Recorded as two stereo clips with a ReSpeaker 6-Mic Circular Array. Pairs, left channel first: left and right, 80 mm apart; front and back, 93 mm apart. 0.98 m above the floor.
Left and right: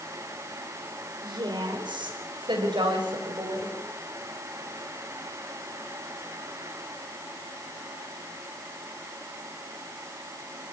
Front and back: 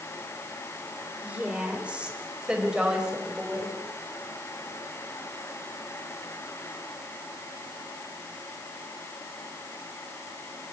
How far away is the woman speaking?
About 4.5 m.